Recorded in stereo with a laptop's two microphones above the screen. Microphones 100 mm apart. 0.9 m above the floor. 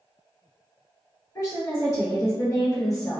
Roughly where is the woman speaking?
Left.